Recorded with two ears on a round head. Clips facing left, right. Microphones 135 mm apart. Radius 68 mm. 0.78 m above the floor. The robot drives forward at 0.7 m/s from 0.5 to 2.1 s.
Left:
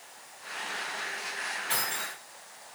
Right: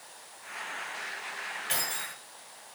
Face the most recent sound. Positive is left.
turn(degrees=-30)  # may be behind; listen again after turning